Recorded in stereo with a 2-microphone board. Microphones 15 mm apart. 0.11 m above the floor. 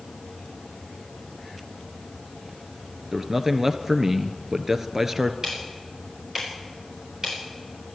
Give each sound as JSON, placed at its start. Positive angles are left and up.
{"t": 3.1, "sound": "a man speaking", "side_deg": -20, "distance_m": 1.4}
{"t": 5.4, "sound": "ticking", "side_deg": -35, "distance_m": 7.0}